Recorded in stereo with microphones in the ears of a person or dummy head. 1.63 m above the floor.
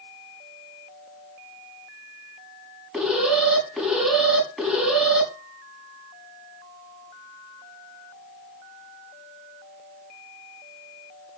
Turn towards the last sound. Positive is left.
turn(degrees=-5)  # may be behind; listen again after turning